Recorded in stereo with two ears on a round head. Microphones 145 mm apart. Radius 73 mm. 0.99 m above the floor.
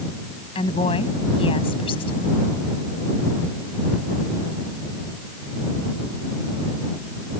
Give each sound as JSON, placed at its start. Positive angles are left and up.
{"t": 0.6, "sound": "a woman speaking", "side_deg": 35}